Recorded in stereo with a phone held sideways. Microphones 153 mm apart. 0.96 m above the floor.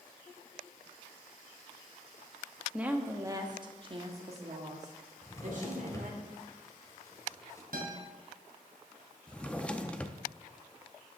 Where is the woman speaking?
5° right (ahead or behind), 1.2 m; by 6.2 s 60° right (ahead or behind), 2.5 m.